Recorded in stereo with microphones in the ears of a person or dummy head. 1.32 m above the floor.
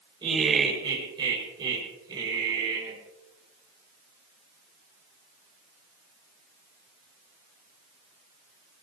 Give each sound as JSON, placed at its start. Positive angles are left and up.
{"t": 0.2, "sound": "laughter", "side_deg": -30, "distance_m": 5.5}